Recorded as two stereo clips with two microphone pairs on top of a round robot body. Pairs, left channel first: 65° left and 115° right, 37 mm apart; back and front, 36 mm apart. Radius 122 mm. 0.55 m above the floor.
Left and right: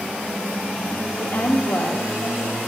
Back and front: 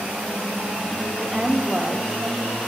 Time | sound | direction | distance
1.2 | a woman speaking | 85° left | 1.5 m